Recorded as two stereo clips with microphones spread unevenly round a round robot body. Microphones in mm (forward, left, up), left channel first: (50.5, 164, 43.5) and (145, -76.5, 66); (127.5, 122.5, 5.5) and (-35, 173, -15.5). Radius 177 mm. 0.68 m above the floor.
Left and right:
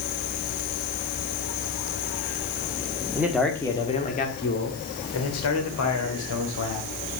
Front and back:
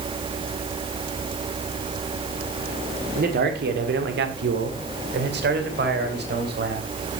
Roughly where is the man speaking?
Behind right.